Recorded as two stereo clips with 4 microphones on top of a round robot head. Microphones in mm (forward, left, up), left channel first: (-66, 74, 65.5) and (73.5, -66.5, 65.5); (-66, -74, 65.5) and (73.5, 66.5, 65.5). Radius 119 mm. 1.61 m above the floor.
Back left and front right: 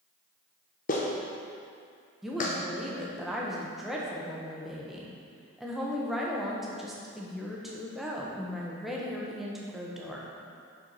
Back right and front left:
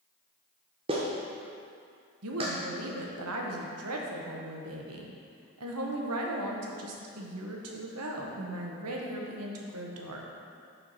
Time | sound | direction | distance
0.9 | a clap | 100° left | 0.7 m
2.2 | a woman speaking | 45° left | 0.9 m